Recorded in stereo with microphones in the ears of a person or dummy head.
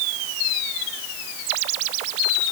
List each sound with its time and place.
Only background noise.